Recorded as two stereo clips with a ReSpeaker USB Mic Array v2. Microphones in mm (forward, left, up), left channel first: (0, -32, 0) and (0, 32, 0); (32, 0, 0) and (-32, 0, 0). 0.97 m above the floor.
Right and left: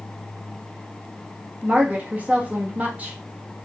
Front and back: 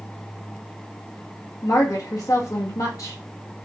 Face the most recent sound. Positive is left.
turn(degrees=25)